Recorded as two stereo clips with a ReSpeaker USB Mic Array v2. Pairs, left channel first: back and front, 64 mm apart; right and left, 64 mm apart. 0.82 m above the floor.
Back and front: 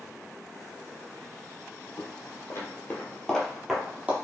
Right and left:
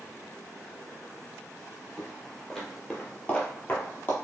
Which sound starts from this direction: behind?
Footsteps, at 2.0 s.